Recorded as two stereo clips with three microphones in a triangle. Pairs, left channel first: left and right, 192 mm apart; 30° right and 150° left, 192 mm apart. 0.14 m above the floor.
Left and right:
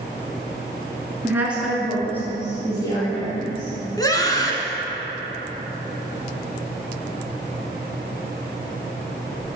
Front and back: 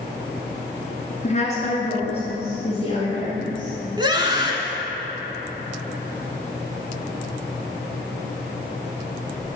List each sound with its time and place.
1.2 s a woman speaking: 20° right, 1.4 m; by 3.7 s 35° left, 2.5 m
4.0 s a scream: 130° left, 1.1 m